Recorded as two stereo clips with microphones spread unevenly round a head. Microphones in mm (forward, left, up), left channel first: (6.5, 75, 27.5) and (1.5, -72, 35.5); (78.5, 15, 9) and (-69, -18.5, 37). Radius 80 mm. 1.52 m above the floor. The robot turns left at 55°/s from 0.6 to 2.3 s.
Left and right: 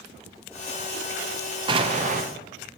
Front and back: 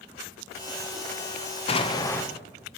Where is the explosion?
30° right, 0.8 m; by 2.2 s 60° right, 0.8 m.